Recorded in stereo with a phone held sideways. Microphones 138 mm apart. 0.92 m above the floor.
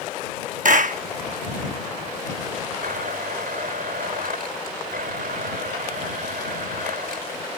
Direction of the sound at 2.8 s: 80° right.